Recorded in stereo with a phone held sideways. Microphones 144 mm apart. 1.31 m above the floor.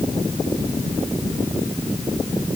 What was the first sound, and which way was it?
Only background noise.